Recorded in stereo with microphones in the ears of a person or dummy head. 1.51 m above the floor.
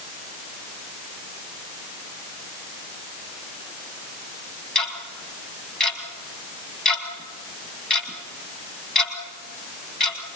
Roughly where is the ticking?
Centre.